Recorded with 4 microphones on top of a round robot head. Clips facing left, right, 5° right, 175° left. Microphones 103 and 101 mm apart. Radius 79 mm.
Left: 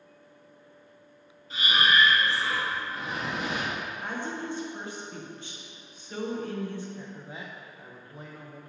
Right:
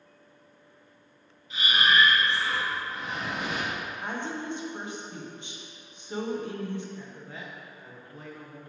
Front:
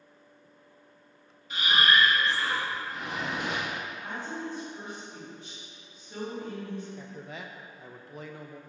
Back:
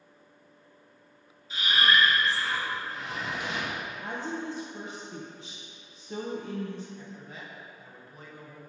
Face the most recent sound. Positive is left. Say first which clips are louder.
# left 1 dB, front 2 dB
turn(degrees=10)